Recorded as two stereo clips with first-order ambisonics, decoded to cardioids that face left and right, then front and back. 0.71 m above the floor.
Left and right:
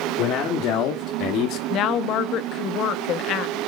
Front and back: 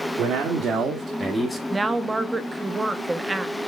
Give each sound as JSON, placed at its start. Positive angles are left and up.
{"t": 0.2, "sound": "a man speaking", "azimuth_deg": 135, "distance_m": 1.3}
{"t": 1.7, "sound": "a woman speaking", "azimuth_deg": 105, "distance_m": 0.6}